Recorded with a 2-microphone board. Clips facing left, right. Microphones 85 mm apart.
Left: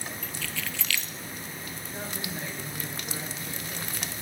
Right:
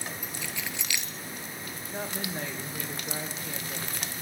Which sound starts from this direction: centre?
Keys jangling, at 0.2 s.